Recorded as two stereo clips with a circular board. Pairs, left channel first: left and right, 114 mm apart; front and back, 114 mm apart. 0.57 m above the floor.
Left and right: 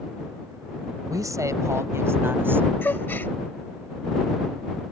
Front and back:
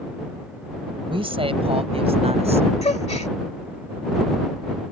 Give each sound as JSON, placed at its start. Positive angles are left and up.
{"t": 1.1, "sound": "a woman speaking", "azimuth_deg": -145}
{"t": 2.8, "sound": "a gasp", "azimuth_deg": 20}